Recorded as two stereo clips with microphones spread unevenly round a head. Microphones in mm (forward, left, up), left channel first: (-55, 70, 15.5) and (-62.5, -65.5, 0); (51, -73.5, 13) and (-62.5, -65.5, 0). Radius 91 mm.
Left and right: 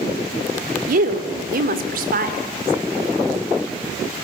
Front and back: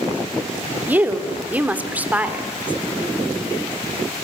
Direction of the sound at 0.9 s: 110° right.